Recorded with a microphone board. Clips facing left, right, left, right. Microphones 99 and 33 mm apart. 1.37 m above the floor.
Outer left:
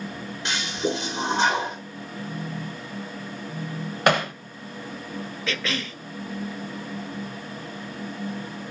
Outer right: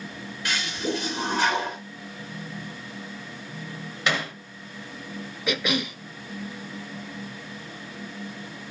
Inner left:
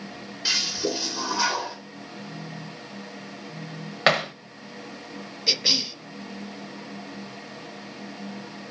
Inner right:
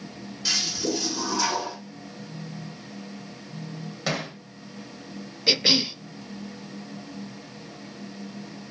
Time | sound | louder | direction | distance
0.5 | a toilet flushing | outer left 2 dB, inner left 1 dB | 25° left (ahead or behind) | 2.5 m
2.2 | a phone buzzing | outer left 5 dB, even | 75° left (ahead or behind) | 1.0 m
4.1 | hammering | outer left 7 dB, inner left 9 dB | 55° left (ahead or behind) | 1.2 m
5.5 | a cough | outer right 5 dB, inner right 3 dB | 15° right (ahead or behind) | 0.6 m